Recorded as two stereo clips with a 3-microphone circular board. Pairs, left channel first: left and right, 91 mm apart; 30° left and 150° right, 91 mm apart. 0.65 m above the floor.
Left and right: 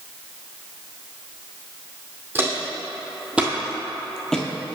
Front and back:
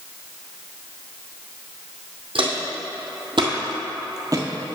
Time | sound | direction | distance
2.4 | footsteps | 155° right | 1.9 m